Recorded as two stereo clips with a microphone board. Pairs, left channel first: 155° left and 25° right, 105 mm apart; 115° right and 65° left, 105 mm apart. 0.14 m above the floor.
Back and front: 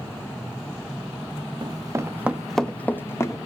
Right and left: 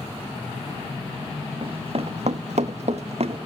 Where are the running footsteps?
25° left, 1.0 m; by 3.4 s 95° left, 1.2 m.